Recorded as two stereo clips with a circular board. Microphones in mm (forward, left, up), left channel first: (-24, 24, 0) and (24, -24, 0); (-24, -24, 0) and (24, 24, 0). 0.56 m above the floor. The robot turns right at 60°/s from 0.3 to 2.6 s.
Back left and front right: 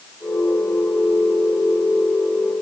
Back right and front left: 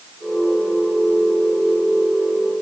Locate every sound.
Only background noise.